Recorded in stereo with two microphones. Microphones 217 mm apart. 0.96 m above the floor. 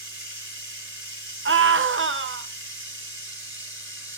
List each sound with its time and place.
0.0 s running water: 65° right (ahead or behind), 3.5 m
1.4 s a scream: 65° right (ahead or behind), 0.6 m